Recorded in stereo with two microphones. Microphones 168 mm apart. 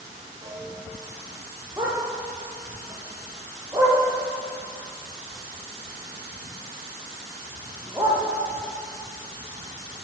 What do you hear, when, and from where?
0.4 s a piano: 40° right (ahead or behind), 7.5 m
1.8 s a dog barking: 20° right (ahead or behind), 9 m